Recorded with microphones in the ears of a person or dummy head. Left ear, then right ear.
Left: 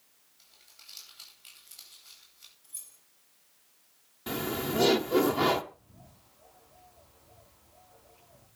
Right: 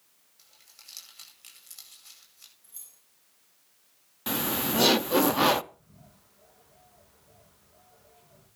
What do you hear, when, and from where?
0.4 s crumpling: 80° right, 9.5 m
2.6 s keys jangling: 30° right (ahead or behind), 6.5 m
4.3 s laughter: 30° right (ahead or behind), 0.6 m
5.7 s a bird: 65° right (ahead or behind), 7.5 m